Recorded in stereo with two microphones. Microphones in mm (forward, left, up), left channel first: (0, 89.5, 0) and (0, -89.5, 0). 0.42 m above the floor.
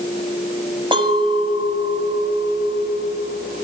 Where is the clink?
30° right (ahead or behind), 1.5 m.